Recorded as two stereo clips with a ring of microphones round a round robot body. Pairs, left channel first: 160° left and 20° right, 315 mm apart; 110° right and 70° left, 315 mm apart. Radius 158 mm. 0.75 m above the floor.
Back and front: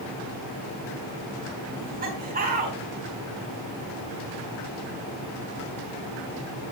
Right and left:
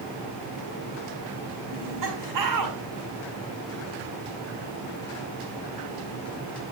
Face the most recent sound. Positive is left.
turn(degrees=40)